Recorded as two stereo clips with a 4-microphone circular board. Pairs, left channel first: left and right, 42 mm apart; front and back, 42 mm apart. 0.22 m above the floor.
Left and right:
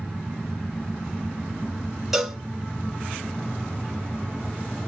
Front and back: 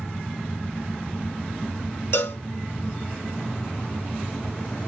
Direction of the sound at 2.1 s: 5° right.